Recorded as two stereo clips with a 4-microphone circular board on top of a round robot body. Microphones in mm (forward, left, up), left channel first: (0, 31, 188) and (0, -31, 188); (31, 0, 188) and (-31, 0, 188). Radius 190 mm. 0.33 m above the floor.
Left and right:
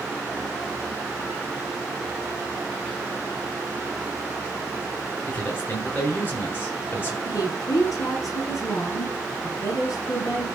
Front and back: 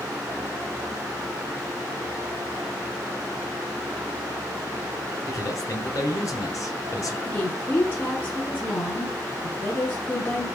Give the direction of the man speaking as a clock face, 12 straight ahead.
11 o'clock.